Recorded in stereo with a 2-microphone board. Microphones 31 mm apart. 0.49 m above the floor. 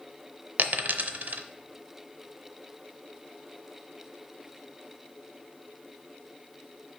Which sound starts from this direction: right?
A dropped coin, at 0.6 s.